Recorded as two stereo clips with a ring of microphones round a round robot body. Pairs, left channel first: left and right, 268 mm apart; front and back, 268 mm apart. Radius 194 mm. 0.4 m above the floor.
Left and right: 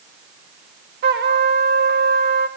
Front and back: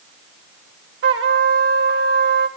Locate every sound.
1.0 s a trumpet: 140° right, 1.8 m